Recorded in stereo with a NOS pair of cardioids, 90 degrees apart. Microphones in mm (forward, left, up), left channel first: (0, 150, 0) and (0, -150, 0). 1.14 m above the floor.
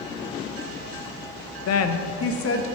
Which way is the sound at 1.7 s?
65° left.